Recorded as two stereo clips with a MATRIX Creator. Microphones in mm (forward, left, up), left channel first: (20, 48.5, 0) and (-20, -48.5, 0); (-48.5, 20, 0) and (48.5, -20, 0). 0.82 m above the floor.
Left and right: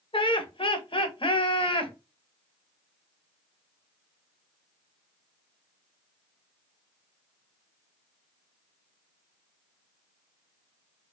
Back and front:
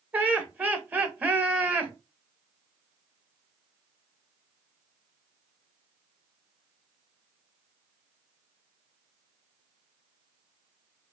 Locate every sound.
0.1 s laughter: 50° left, 0.8 m